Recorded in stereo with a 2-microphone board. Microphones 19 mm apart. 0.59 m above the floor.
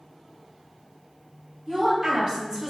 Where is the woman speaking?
30° right (ahead or behind), 1.6 m.